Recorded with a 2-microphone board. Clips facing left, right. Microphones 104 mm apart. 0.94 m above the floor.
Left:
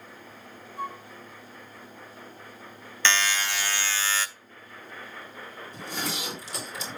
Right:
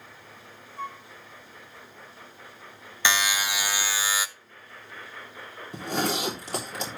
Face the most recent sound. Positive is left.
turn(degrees=-70)  # may be behind; listen again after turning